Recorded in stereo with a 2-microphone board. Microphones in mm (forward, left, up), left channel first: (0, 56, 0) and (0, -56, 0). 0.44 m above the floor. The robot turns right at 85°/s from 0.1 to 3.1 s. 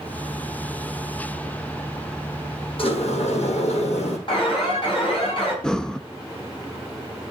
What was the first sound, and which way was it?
A sliding door, 55° left (ahead or behind).